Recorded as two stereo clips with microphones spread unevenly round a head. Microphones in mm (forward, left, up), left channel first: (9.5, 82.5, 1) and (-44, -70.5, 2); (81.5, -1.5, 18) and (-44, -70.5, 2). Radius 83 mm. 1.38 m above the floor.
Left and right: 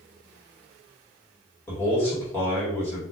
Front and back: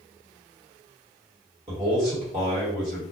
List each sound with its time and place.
1.7 s a man speaking: 145° left, 1.8 m